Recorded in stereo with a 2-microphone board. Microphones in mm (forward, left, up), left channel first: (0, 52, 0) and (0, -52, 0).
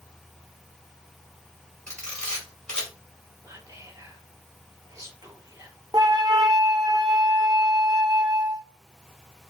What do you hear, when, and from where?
1.9 s a camera shutter: 10° left (ahead or behind), 2.5 m
3.4 s whispering: 30° right (ahead or behind), 1.7 m
5.9 s a flute: 35° right (ahead or behind), 0.6 m